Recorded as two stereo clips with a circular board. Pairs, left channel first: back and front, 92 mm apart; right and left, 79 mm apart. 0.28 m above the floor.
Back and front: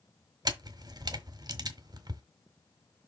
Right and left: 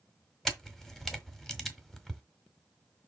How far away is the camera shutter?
About 1.5 m.